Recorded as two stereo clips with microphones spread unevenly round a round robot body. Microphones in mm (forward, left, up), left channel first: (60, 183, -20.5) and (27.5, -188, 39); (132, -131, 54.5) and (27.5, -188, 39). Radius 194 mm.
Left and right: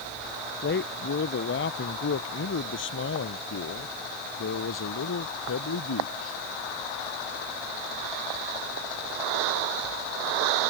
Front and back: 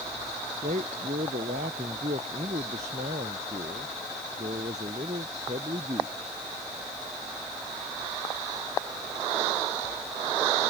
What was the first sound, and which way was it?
A man speaking, 150° left.